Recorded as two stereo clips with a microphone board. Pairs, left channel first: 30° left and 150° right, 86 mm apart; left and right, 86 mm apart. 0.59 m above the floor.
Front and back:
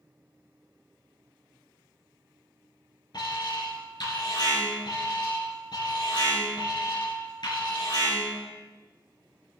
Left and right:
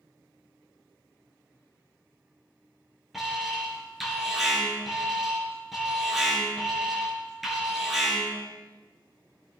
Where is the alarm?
5° right, 5.5 m.